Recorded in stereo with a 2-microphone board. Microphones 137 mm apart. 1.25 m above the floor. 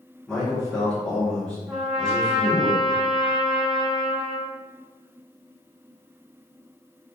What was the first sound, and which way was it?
A man speaking, 5° left (ahead or behind).